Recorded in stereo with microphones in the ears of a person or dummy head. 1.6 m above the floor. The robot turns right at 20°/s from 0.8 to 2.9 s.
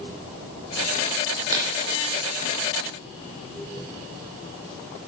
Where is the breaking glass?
20° right (ahead or behind), 2.5 m; by 1.7 s 15° right (ahead or behind), 2.5 m.